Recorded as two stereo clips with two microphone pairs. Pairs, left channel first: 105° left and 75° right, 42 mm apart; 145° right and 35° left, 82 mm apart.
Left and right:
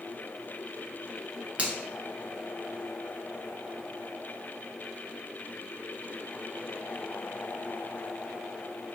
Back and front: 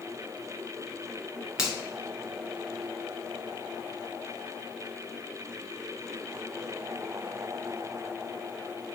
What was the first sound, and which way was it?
A finger snap, 45° right.